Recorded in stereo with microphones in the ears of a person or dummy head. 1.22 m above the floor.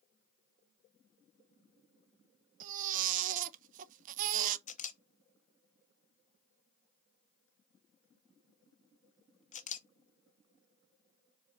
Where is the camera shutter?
35° left (ahead or behind), 0.7 m.